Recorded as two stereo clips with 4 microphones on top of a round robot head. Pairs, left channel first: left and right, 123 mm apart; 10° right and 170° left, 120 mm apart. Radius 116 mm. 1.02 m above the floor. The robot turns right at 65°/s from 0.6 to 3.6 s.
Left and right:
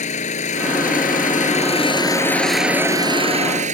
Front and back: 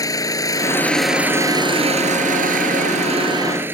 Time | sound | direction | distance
0.0 | an engine running | 55° left | ?